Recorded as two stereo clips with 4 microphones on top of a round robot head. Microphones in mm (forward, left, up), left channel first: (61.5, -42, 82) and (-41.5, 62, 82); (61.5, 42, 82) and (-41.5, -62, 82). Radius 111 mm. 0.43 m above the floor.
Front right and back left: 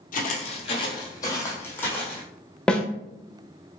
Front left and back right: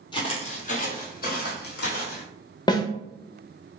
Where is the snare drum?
35° left, 0.8 m.